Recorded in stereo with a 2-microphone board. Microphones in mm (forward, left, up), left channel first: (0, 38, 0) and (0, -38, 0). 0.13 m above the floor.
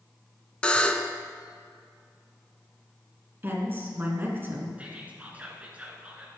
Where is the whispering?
20° right (ahead or behind), 1.5 m.